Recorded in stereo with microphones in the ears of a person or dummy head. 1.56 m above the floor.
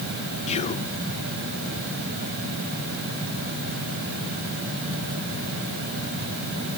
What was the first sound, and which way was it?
Whispering, 40° left (ahead or behind).